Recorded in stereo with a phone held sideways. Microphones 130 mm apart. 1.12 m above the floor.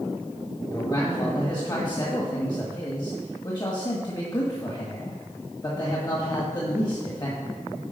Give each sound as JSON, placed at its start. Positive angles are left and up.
{"t": 0.7, "sound": "a man speaking", "side_deg": 35, "distance_m": 1.6}